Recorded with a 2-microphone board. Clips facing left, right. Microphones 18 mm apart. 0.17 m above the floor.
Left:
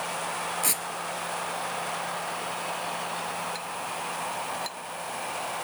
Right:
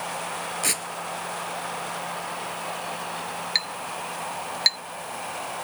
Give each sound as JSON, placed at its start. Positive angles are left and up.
{"t": 0.6, "sound": "tearing paper", "side_deg": -15}
{"t": 3.5, "sound": "a clink", "side_deg": -65}